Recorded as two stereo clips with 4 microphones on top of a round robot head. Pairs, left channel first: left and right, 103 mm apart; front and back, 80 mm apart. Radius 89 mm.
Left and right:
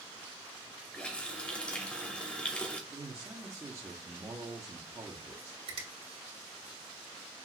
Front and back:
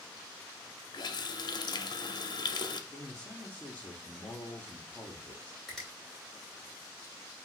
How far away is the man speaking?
About 0.9 m.